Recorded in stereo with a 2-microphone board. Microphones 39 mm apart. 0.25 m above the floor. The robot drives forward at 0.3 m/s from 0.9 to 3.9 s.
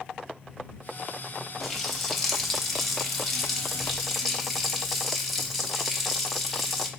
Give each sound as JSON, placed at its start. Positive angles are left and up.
{"t": 1.6, "sound": "a running tap", "side_deg": 0, "distance_m": 0.6}